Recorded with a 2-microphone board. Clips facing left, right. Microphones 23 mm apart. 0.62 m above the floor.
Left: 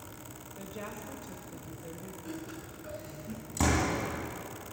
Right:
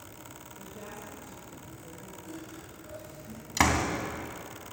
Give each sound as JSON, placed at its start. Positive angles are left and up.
{"t": 0.6, "sound": "a woman speaking", "side_deg": 45, "distance_m": 3.0}
{"t": 2.2, "sound": "laughter", "side_deg": 35, "distance_m": 7.0}
{"t": 3.6, "sound": "a door slam", "side_deg": -85, "distance_m": 3.0}